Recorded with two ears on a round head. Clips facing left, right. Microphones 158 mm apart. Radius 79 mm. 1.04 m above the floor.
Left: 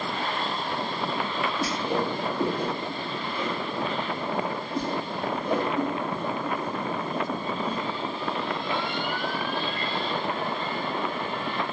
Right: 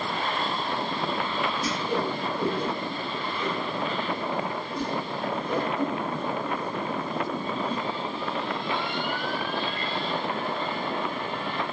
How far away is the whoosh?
About 1.4 m.